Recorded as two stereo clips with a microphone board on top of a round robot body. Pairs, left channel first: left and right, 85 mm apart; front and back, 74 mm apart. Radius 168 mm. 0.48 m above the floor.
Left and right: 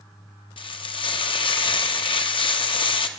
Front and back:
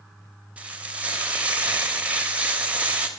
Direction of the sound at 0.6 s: 110° left.